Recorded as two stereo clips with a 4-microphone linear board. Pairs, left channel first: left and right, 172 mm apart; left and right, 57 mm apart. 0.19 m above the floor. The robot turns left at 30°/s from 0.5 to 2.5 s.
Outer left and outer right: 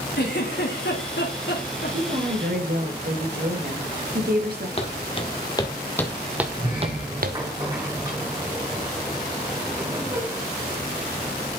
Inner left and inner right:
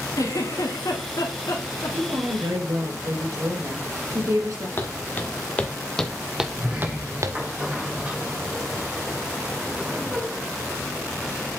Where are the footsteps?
35° left (ahead or behind), 2 m; by 7.4 s 65° right (ahead or behind), 1.0 m.